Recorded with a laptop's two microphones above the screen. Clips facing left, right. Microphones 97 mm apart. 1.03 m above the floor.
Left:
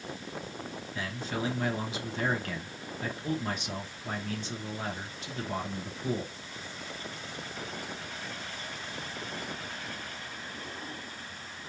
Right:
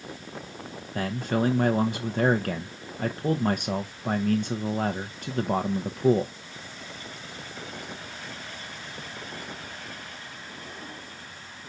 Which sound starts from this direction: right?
A man speaking, at 0.9 s.